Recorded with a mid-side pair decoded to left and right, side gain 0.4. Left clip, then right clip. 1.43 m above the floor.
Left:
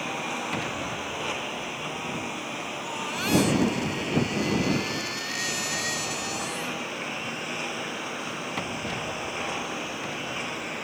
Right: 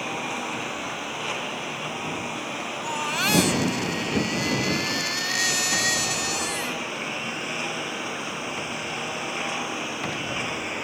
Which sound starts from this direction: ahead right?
A baby crying, at 2.8 s.